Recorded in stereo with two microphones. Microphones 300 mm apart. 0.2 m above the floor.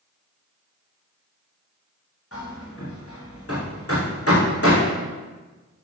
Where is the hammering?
50° left (ahead or behind), 4.5 m.